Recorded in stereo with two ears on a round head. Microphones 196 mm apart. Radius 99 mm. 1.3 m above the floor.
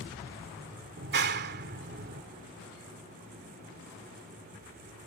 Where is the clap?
55° right (ahead or behind).